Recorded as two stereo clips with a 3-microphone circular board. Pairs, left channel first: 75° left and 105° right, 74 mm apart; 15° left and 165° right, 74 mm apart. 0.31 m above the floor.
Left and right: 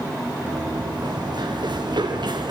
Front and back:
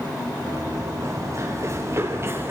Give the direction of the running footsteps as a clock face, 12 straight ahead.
4 o'clock.